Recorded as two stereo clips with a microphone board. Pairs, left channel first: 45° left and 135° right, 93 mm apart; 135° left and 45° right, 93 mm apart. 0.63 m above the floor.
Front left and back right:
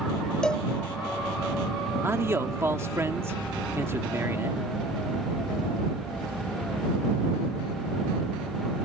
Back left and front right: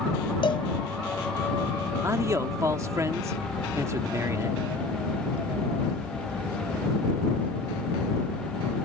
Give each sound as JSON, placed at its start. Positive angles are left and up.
{"t": 0.4, "sound": "a cowbell", "azimuth_deg": 125}
{"t": 2.0, "sound": "a man speaking", "azimuth_deg": -85}